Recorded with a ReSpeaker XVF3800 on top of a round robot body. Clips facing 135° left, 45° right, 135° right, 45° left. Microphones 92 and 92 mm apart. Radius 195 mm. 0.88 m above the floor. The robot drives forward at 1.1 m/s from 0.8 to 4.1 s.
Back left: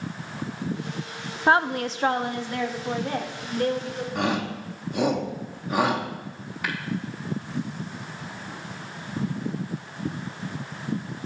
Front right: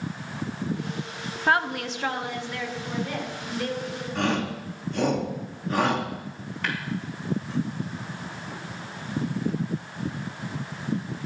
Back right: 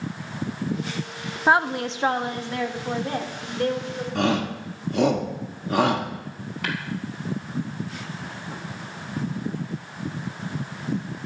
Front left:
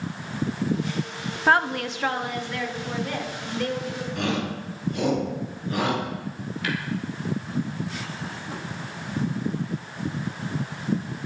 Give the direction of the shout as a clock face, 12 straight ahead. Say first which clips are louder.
Front right 1 dB, back right 5 dB; 5 o'clock.